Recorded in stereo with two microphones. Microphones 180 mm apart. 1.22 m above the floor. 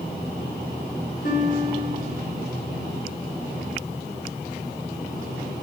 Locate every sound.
1.2 s a guitar: 60° left (ahead or behind), 5.5 m